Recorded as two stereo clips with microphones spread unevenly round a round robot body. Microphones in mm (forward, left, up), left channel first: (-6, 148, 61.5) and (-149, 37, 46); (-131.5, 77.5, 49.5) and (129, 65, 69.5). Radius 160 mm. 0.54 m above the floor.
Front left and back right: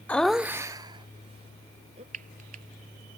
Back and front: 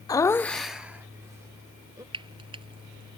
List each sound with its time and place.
0.1 s laughter: 120° left; by 2.0 s 80° right
2.1 s frying: 80° right